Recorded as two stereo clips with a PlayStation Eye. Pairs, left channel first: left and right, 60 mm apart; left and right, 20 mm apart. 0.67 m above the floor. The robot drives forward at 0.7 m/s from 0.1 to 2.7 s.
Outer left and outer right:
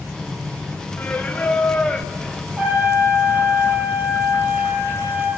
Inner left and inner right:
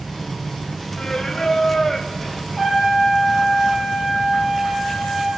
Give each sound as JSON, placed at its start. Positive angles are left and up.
{"t": 1.0, "sound": "singing", "side_deg": 30, "distance_m": 0.7}
{"t": 2.6, "sound": "a trumpet", "side_deg": -30, "distance_m": 9.0}